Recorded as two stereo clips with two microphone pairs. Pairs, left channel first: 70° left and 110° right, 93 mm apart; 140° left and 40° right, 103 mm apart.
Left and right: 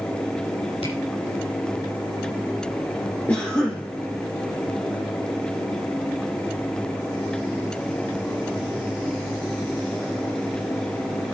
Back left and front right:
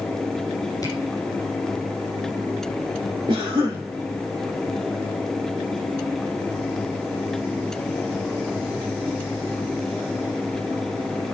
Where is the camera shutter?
85° left, 6.5 m.